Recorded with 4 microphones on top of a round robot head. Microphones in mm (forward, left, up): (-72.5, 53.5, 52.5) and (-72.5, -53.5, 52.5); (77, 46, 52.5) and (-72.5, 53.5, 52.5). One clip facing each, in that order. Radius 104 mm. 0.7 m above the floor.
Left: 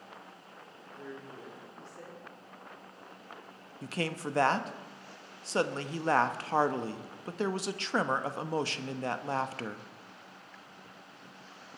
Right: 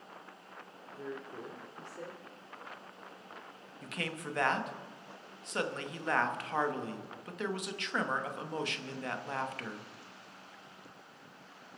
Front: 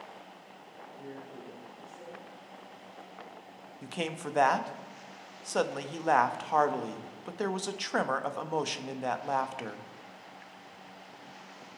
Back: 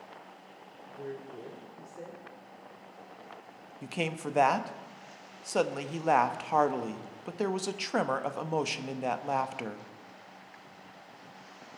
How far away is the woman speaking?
About 2 m.